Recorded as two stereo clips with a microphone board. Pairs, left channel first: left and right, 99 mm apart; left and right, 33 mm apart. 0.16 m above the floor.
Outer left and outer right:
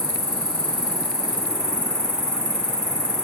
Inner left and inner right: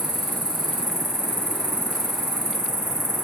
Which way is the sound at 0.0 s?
10° right (ahead or behind).